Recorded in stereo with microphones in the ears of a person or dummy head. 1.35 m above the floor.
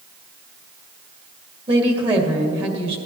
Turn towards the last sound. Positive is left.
turn(degrees=-25)  # may be behind; listen again after turning